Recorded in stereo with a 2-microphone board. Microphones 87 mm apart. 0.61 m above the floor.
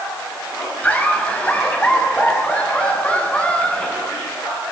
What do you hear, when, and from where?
0.8 s laughter: 15° left (ahead or behind), 4.5 m